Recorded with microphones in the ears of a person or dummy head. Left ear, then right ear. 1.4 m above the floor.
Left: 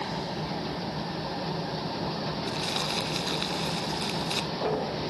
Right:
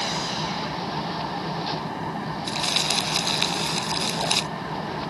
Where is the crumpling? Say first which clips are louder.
Right 8 dB; 20° right (ahead or behind).